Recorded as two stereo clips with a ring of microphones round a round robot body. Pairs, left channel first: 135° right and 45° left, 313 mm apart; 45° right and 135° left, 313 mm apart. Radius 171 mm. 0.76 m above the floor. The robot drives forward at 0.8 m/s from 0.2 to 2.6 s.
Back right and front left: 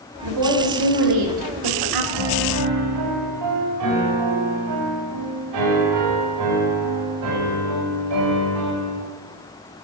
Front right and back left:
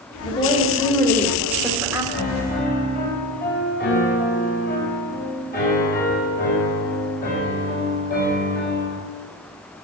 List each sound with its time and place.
0.2 s a woman speaking: 30° left, 3 m; by 2.0 s 55° left, 1.9 m
2.1 s a piano: 15° left, 3.5 m